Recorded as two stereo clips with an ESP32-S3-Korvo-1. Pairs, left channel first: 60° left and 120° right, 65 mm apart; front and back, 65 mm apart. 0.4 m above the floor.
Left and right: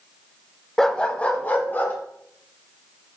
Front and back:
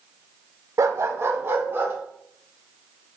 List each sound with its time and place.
0.8 s a dog barking: 145° left, 0.6 m; by 1.9 s 120° left, 1.7 m